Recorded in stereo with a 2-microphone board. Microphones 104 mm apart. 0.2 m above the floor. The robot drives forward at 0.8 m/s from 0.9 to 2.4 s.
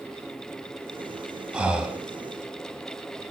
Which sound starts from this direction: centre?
Breathing, at 1.5 s.